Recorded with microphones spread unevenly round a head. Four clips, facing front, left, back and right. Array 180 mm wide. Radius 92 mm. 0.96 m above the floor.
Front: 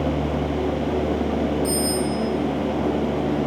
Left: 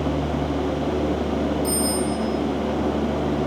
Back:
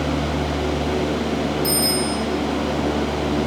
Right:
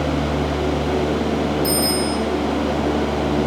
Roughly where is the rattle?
I don't hear a rattle.